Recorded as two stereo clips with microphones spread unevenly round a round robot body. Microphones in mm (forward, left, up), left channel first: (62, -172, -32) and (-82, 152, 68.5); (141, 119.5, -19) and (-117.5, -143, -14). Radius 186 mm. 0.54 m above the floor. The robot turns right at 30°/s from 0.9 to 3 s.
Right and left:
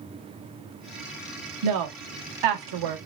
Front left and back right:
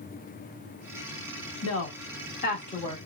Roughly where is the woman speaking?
Left.